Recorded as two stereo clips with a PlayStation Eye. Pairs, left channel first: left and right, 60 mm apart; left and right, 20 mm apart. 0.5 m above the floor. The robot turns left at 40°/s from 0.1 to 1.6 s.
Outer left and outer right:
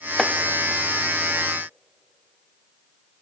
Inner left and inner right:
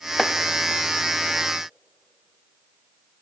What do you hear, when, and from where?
0.2 s chopping: 5° left (ahead or behind), 0.7 m